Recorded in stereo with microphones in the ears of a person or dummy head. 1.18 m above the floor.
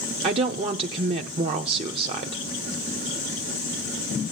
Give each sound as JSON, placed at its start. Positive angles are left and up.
{"t": 0.2, "sound": "a woman speaking", "side_deg": -30, "distance_m": 0.8}